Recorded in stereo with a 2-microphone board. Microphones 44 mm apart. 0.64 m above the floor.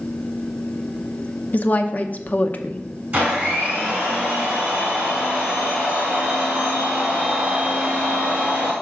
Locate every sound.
1.5 s a woman speaking: 35° left (ahead or behind), 0.6 m
3.1 s a blender: 30° right (ahead or behind), 2.5 m